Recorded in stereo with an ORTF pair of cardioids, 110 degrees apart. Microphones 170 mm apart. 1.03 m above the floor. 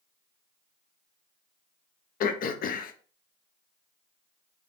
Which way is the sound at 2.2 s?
60° left.